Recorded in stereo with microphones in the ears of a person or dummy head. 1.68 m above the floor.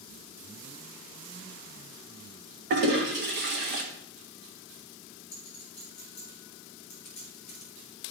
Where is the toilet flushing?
45° right (ahead or behind), 1.6 m.